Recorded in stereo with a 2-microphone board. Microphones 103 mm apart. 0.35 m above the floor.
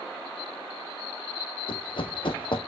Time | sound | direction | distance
1.7 | running footsteps | 60° left (ahead or behind) | 0.8 m